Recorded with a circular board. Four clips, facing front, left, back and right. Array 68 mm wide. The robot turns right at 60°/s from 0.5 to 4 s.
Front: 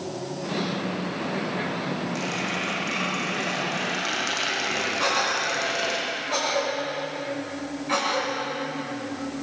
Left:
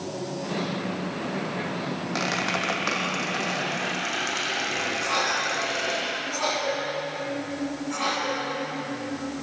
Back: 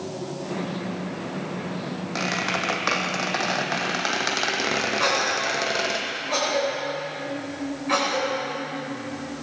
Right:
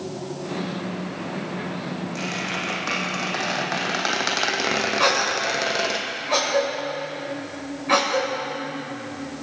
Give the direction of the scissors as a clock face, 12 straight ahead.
No scissors in this recording.